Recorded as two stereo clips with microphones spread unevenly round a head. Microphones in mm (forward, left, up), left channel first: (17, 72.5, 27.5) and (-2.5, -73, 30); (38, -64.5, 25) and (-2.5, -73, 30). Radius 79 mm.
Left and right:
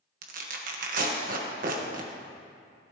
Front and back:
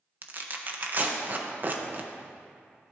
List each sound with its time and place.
0.2 s tearing paper: 125° right, 1.5 m